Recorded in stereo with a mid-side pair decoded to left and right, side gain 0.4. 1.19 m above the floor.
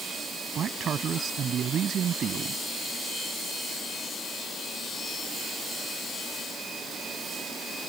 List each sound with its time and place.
0.6 s a man speaking: 60° right